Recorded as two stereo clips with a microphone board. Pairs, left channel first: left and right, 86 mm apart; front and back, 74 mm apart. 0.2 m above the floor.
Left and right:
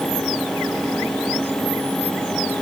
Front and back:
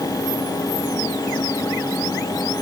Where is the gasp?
No gasp in this recording.